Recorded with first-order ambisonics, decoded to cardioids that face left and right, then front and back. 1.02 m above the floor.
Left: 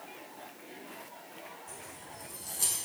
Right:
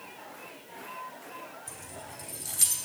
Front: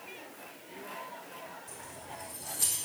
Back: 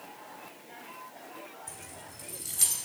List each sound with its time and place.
1.7 s keys jangling: 135° right, 3 m